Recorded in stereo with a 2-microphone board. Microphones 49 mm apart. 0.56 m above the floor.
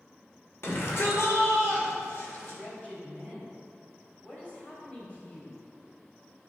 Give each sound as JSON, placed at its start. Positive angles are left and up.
{"t": 0.6, "sound": "a shout", "side_deg": 55, "distance_m": 2.0}
{"t": 2.5, "sound": "a man speaking", "side_deg": 25, "distance_m": 3.0}